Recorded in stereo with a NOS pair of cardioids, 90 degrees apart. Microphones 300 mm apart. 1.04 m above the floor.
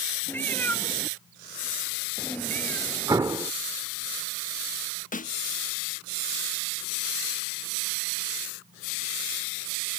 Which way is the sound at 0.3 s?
5° left.